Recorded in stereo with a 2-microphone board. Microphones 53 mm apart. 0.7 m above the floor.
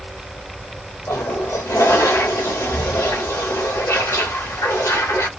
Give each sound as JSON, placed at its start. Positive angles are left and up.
{"t": 1.1, "sound": "a toilet flushing", "side_deg": 75, "distance_m": 0.7}